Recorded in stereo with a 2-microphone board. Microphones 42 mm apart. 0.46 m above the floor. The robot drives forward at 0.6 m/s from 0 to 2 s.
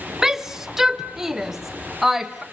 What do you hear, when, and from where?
0.2 s a shout: 5° right (ahead or behind), 0.7 m